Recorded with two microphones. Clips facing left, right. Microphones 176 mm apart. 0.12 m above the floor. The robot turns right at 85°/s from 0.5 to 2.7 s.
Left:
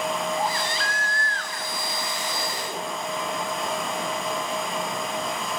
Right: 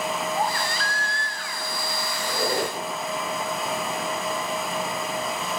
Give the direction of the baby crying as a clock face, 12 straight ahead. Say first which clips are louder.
Even; 3 o'clock.